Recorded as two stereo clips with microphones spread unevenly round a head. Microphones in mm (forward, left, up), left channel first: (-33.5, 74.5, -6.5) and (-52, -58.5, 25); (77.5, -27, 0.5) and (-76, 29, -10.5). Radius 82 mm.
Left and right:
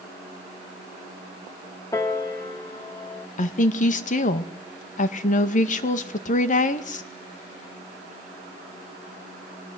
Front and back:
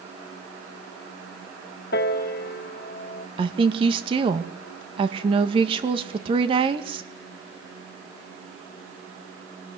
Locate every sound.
1.9 s a piano: 5° left, 1.7 m
3.4 s a woman speaking: 100° left, 2.0 m